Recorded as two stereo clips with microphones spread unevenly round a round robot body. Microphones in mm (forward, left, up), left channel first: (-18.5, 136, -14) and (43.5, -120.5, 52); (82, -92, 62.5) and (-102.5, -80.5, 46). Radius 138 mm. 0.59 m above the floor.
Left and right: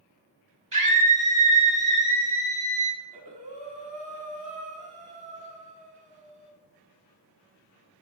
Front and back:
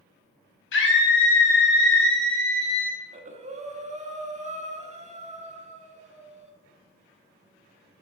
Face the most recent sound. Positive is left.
turn(degrees=-145)